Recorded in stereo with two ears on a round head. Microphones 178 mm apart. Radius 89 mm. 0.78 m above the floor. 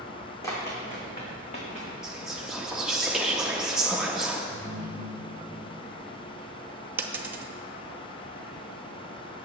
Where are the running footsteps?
15° left (ahead or behind), 3 m; by 1.9 s 40° left (ahead or behind), 4 m.